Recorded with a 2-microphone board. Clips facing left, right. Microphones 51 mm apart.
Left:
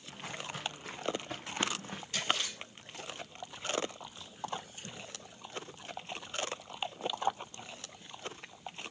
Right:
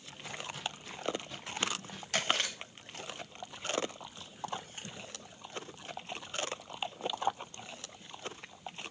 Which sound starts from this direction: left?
Footsteps, at 0.1 s.